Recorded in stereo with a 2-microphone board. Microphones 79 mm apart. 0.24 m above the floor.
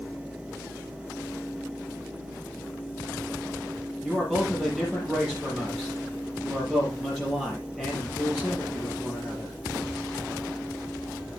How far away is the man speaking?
About 6 m.